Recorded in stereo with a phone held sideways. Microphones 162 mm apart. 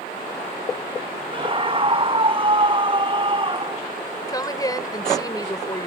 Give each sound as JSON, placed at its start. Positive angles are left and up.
{"t": 1.3, "sound": "a scream", "side_deg": -35}
{"t": 4.3, "sound": "a woman speaking", "side_deg": 25}